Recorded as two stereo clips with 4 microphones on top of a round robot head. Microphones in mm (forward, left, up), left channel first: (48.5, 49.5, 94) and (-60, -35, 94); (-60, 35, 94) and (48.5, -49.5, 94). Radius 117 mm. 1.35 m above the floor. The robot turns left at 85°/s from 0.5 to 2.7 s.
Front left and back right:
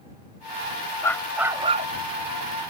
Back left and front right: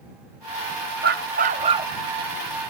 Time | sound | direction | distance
1.0 | a dog barking | 30° right | ?